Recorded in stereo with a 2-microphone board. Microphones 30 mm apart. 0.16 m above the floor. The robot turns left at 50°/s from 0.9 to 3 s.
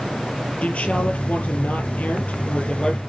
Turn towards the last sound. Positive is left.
turn(degrees=25)